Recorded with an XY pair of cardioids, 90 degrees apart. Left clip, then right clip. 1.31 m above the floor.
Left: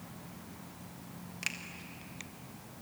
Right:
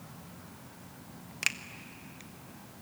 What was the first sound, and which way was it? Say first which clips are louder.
A finger snap: right 6 dB; 55° right.